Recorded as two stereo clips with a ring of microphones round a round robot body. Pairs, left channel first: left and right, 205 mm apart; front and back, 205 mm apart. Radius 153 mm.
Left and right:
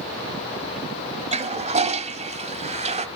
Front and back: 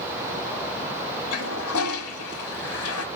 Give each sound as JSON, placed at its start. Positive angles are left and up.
{"t": 1.3, "sound": "a toilet flushing", "azimuth_deg": -30, "distance_m": 1.3}